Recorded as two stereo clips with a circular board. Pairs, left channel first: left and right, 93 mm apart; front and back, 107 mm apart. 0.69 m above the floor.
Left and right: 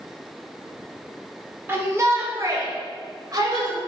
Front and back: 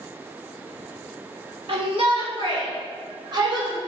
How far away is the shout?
About 1.5 m.